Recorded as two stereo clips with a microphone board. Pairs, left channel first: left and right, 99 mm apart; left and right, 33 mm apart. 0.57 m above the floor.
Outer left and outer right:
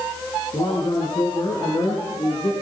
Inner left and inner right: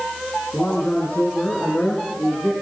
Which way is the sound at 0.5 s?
50° left (ahead or behind).